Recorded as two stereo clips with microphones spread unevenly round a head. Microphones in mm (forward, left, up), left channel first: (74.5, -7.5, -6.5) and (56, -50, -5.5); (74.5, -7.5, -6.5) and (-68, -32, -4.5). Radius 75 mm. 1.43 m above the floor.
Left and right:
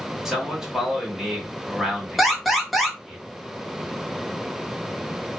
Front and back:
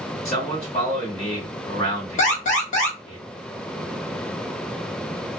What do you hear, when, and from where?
0.2 s a man speaking: 35° right, 2.0 m
2.2 s an alarm: 25° right, 1.1 m